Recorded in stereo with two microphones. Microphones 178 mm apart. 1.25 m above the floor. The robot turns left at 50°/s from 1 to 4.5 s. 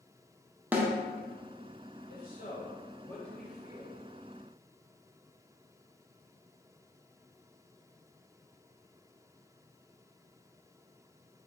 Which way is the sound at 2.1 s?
75° left.